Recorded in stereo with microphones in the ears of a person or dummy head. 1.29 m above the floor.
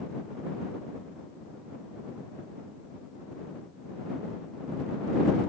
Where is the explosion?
No explosion in this recording.